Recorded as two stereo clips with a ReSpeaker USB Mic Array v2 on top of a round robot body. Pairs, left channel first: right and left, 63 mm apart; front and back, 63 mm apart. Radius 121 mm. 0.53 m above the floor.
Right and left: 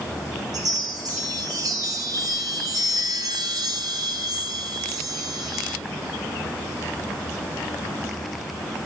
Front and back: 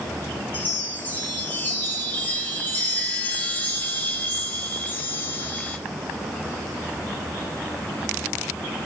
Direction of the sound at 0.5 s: 65° left.